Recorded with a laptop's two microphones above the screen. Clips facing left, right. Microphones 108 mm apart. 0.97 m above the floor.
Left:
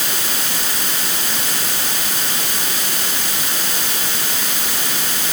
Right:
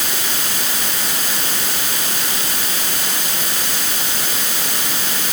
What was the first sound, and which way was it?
Only background noise.